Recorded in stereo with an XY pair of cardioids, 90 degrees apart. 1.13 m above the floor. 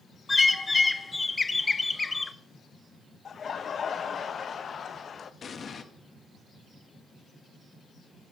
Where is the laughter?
50° left, 0.7 m.